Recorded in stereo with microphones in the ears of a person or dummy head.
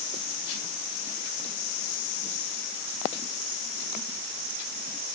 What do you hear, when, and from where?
Only background noise.